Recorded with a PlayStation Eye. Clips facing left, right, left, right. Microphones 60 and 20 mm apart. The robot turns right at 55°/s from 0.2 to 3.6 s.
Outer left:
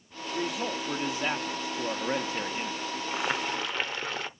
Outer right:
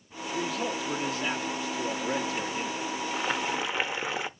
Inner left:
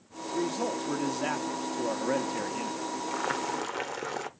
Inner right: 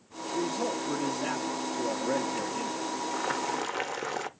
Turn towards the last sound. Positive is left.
turn(degrees=-10)  # may be behind; listen again after turning